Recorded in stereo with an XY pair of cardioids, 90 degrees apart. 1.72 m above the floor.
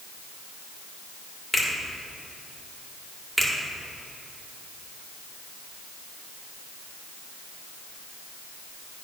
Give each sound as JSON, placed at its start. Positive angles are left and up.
{"t": 1.5, "sound": "a finger snap", "azimuth_deg": 15, "distance_m": 2.5}
{"t": 3.4, "sound": "a finger snap", "azimuth_deg": -10, "distance_m": 2.0}